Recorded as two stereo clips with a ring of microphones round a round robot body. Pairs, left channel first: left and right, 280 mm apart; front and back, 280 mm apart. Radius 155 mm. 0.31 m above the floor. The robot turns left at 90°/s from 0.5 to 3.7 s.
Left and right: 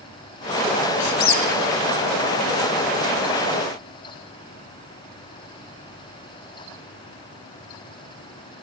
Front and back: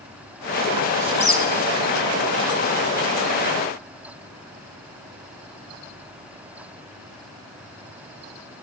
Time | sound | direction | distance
1.0 | a squeak | 100° left | 1.9 m